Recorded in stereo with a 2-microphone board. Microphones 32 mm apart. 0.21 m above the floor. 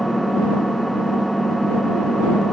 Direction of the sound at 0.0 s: Centre (ahead or behind).